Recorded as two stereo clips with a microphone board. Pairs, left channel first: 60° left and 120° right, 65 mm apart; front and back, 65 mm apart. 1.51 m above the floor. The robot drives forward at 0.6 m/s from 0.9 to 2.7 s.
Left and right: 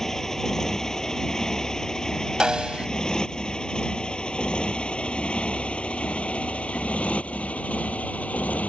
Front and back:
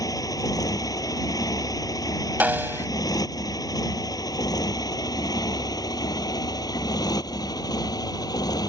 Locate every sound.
0.0 s a motorcycle: 25° right; by 8.7 s 10° right
2.4 s a snare drum: 175° left